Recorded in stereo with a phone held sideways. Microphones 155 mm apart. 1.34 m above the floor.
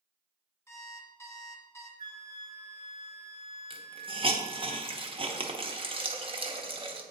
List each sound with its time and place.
0.7 s an alarm clock: 15° left (ahead or behind), 0.9 m
2.0 s a flute: 65° left (ahead or behind), 1.7 m
3.7 s a hiss: 35° right (ahead or behind), 0.8 m